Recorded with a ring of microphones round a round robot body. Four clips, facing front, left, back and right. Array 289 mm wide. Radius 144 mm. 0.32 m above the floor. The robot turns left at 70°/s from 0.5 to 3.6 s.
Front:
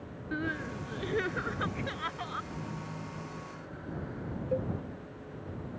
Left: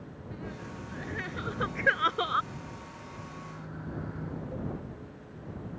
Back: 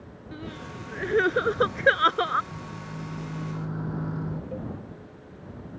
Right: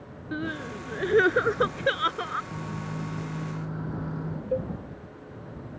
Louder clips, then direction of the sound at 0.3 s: Right 10 dB, front 4 dB; 70° right.